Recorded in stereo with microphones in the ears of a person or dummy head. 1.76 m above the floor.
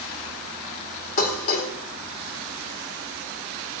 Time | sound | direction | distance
1.2 | dishes clattering | 45° left (ahead or behind) | 4 m